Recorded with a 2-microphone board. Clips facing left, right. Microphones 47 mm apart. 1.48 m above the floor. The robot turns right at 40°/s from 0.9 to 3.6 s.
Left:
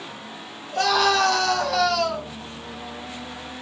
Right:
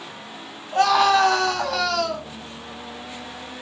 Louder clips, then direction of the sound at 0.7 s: Right 3 dB; 40° right.